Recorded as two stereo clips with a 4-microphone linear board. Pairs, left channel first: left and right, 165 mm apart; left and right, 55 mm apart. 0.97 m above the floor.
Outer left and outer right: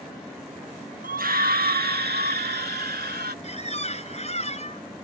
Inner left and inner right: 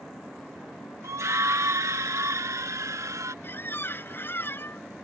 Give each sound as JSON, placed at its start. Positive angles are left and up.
{"t": 1.0, "sound": "a scream", "side_deg": -55}
{"t": 3.4, "sound": "a squeak", "side_deg": 40}